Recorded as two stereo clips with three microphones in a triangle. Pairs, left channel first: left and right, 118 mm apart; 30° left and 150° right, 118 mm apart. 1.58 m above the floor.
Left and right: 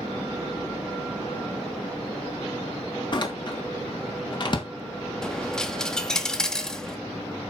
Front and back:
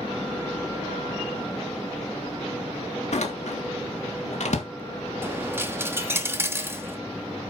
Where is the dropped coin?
170° left, 1.1 m.